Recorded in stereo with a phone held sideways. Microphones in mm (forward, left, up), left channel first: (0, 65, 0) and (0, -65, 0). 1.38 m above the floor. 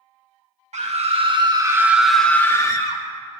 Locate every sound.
0.7 s a scream: 60° right (ahead or behind), 1.1 m; by 3.0 s 35° left (ahead or behind), 1.2 m